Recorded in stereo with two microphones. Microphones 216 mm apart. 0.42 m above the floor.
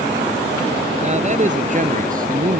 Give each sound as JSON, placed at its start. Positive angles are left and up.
{"t": 1.0, "sound": "a man speaking", "side_deg": -35}